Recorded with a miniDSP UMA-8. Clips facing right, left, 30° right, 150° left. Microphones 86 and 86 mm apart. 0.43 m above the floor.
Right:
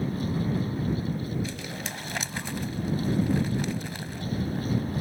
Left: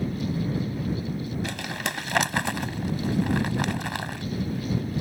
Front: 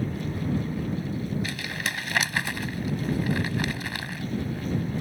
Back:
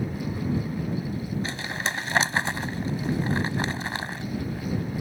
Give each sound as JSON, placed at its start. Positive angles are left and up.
{"t": 1.4, "sound": "crumpling", "azimuth_deg": 90}